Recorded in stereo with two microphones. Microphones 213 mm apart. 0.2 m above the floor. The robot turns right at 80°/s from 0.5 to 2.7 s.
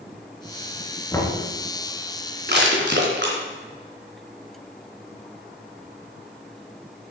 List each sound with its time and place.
1.1 s knocking: 15° left (ahead or behind), 2 m; by 1.4 s 10° right (ahead or behind), 2 m
2.5 s crushing: 50° right (ahead or behind), 2.5 m; by 3.4 s 55° right (ahead or behind), 2.5 m